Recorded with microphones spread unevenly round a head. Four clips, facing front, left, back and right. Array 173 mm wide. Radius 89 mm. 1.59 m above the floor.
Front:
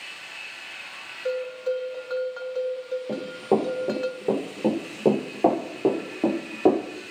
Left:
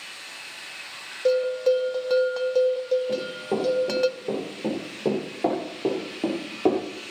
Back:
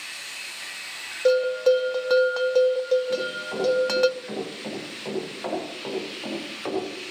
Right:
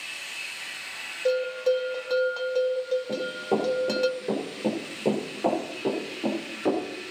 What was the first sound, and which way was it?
A bell, 150° left.